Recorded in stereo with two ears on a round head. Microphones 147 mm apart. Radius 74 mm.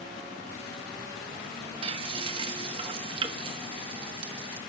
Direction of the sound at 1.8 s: 30° right (ahead or behind).